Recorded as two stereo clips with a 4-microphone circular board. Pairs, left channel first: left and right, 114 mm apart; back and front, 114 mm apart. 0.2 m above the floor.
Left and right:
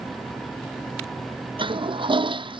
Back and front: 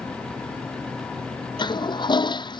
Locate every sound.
1.6 s a toilet flushing: 135° right